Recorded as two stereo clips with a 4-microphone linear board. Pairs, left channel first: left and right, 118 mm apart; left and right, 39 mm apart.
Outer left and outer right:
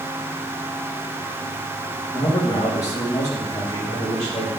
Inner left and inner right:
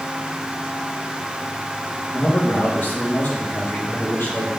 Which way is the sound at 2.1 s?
70° left (ahead or behind).